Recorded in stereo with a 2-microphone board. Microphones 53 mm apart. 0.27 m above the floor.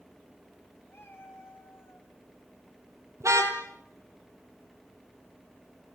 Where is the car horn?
75° right (ahead or behind), 4 m.